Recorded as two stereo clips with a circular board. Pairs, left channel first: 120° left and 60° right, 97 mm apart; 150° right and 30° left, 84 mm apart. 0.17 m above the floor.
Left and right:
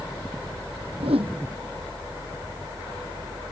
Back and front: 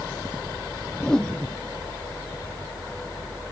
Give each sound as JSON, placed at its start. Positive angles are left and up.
{"t": 1.0, "sound": "a whoosh", "azimuth_deg": -65}